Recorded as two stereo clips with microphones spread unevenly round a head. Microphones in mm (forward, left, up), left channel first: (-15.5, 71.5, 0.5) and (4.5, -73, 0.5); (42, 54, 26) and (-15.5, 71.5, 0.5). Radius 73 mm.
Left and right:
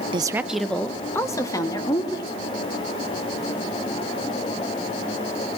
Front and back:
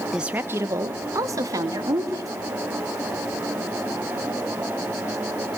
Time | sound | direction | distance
0.1 | a woman speaking | 130° right | 0.6 m